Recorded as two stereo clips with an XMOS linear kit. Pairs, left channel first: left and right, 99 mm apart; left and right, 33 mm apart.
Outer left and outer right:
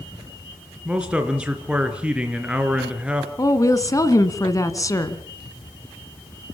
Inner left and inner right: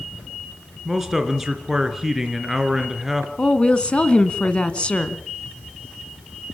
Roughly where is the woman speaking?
Left.